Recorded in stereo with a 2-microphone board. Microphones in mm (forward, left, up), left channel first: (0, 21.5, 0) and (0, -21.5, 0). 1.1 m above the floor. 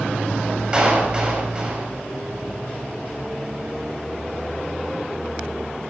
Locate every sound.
0.7 s a clap: 20° right (ahead or behind), 6 m